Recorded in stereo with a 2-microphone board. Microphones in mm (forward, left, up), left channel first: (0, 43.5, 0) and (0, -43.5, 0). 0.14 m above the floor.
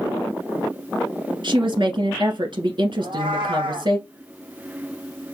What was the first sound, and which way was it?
A woman speaking, 55° right (ahead or behind).